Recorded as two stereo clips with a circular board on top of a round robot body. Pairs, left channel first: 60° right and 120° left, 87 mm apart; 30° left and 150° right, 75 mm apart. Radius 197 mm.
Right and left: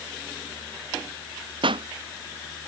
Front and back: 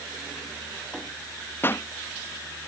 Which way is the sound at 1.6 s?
90° left.